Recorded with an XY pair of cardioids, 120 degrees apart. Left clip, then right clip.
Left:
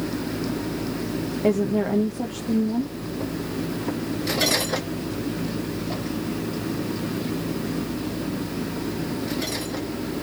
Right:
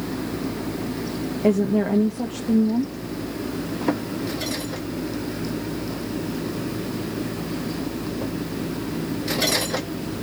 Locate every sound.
1.4 s a woman speaking: 5° right, 0.8 m